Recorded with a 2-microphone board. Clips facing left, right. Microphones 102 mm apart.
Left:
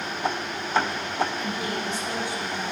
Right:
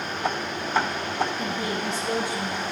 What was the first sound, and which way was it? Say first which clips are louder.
A woman speaking: right 1 dB; 30° right (ahead or behind).